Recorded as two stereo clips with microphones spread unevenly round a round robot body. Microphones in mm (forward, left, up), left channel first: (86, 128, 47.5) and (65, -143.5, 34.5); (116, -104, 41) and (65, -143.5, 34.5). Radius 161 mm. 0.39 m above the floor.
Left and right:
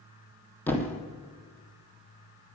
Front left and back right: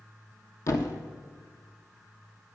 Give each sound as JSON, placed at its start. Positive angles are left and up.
{"t": 0.7, "sound": "a thud", "azimuth_deg": 5, "distance_m": 1.2}